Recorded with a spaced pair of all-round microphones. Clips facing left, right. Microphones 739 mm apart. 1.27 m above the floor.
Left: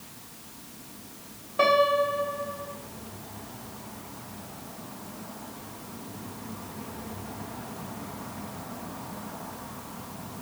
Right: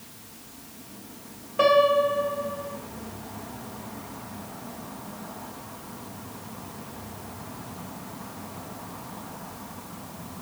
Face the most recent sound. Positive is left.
turn(degrees=0)  # may be behind; listen again after turning